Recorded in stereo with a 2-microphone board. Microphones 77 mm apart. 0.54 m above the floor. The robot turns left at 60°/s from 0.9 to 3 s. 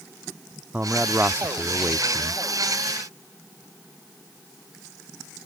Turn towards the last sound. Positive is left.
turn(degrees=-170)